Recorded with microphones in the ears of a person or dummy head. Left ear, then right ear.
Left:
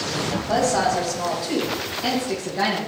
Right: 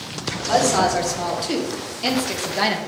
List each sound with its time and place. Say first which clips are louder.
0.5 s a woman speaking: right 3 dB; 45° right (ahead or behind), 3 m; by 2.8 s 55° right (ahead or behind), 1.9 m